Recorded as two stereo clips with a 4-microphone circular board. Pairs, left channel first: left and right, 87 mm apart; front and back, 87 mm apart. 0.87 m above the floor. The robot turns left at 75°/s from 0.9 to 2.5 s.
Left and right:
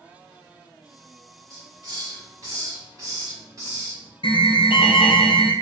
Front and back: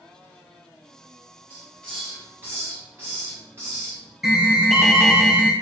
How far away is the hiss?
About 1.4 m.